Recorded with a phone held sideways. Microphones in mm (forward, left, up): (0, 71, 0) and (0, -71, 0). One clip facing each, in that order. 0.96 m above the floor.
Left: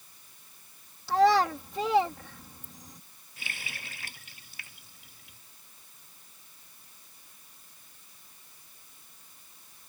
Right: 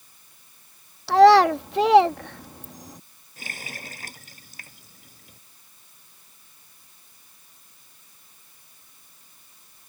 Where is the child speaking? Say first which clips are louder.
Right 9 dB; 75° right (ahead or behind).